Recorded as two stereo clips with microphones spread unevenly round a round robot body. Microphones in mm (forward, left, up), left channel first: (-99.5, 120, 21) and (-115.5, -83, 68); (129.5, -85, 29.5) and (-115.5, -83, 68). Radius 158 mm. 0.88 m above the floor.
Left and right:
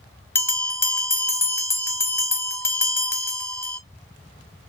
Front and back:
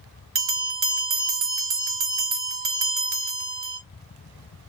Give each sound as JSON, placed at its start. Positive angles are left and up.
{"t": 0.3, "sound": "a bell", "azimuth_deg": 175, "distance_m": 1.1}